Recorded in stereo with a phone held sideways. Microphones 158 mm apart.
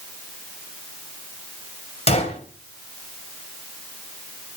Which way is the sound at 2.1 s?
45° left (ahead or behind).